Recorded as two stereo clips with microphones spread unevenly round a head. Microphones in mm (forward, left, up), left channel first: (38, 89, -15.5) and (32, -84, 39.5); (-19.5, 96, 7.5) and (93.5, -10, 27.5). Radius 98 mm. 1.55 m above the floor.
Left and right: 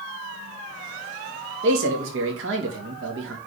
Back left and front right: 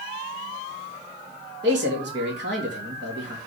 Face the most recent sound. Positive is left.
turn(degrees=-85)